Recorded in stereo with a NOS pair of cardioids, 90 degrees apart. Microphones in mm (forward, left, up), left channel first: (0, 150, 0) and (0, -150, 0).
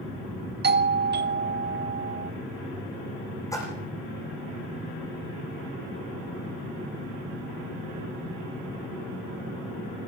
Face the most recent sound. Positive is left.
turn(degrees=10)